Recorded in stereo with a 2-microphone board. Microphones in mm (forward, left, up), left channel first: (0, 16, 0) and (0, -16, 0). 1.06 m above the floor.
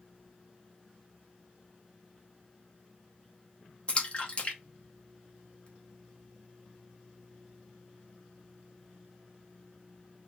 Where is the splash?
30° left (ahead or behind), 0.9 m.